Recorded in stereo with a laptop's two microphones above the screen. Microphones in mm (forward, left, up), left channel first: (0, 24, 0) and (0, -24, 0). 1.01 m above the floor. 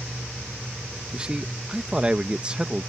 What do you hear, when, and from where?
1.1 s a man speaking: 20° right (ahead or behind)